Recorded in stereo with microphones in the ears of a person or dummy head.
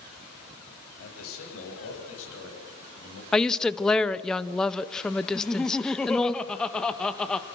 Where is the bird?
I don't hear a bird.